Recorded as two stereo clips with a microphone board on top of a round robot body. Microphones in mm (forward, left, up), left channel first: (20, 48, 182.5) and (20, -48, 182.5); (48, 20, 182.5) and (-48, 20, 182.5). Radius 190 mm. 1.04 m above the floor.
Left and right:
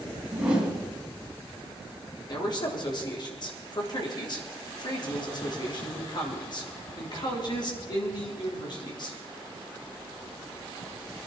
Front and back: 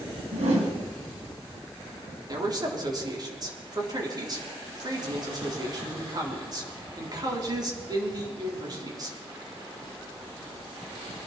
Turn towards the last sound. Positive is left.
turn(degrees=130)